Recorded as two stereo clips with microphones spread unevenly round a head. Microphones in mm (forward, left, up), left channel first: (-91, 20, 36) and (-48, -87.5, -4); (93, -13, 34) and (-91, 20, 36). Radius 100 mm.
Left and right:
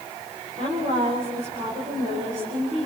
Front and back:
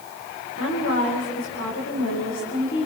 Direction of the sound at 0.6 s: 25° right.